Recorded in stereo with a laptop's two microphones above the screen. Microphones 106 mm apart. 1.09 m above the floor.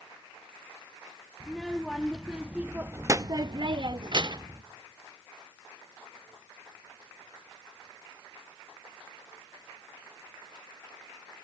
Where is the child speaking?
Centre (ahead or behind), 1.3 m; by 4.6 s 40° right (ahead or behind), 0.8 m.